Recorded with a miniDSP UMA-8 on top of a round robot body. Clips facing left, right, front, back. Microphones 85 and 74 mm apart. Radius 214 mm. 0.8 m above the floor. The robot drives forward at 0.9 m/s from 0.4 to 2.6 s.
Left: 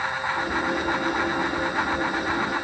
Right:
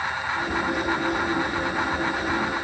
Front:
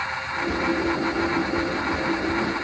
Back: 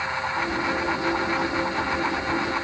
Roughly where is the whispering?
I don't hear whispering.